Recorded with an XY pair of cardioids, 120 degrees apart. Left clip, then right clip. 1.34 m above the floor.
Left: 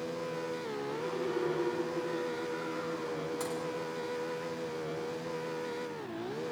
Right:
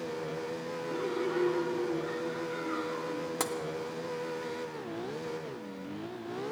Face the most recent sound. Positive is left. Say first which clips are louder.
# right 7 dB
turn(degrees=-60)